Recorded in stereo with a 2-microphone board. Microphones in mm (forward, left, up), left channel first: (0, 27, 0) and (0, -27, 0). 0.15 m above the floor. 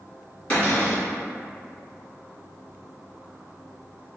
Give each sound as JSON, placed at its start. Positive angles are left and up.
{"t": 0.5, "sound": "a cupboard door", "side_deg": 20, "distance_m": 1.7}